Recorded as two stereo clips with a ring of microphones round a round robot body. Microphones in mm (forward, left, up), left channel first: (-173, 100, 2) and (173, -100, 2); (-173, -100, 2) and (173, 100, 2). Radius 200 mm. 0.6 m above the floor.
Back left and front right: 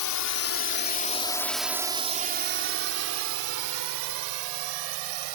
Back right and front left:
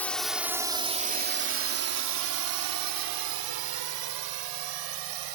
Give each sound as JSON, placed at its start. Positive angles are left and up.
{"t": 0.0, "sound": "a drone", "azimuth_deg": 125}